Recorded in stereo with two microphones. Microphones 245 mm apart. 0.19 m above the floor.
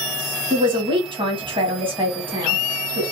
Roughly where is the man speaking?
Centre.